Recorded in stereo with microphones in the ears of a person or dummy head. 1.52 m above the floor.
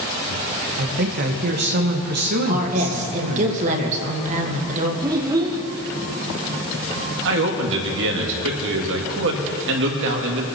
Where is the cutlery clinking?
I don't hear cutlery clinking.